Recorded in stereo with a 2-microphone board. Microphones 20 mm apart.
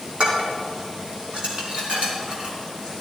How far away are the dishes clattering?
About 3 m.